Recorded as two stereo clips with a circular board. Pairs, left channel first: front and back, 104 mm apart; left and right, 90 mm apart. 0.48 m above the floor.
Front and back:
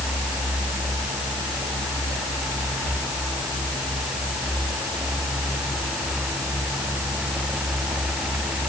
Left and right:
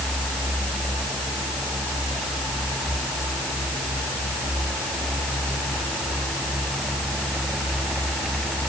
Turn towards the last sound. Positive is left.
No sound to turn to.